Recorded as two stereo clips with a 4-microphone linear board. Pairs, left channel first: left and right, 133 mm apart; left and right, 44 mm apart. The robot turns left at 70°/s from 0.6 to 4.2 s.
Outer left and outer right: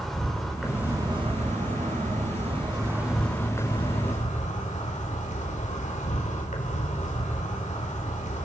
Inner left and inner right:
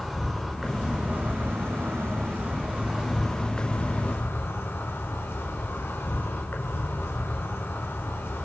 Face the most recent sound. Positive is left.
turn(degrees=110)